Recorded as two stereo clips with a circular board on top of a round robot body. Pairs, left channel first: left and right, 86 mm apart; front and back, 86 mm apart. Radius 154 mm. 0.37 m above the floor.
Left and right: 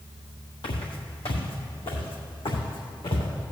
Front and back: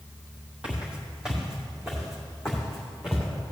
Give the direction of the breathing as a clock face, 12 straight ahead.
No breathing in this recording.